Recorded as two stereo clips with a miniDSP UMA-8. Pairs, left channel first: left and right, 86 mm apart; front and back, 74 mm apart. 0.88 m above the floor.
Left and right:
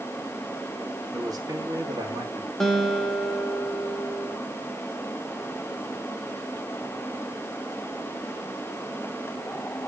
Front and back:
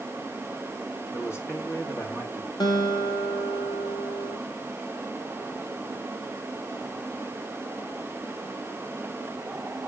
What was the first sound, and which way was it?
A man speaking, 50° right.